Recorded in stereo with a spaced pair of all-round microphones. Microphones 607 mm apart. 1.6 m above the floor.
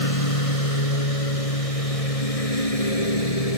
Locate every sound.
0.0 s a lawn mower: 65° left (ahead or behind); by 3.6 s 70° left (ahead or behind)